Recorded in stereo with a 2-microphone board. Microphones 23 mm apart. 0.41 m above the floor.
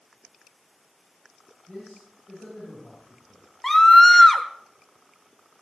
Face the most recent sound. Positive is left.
turn(degrees=15)  # may be behind; listen again after turning